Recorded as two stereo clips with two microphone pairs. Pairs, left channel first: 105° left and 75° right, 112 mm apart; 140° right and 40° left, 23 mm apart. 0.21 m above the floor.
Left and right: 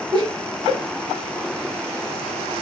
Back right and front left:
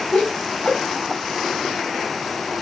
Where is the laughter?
120° right, 3.5 m.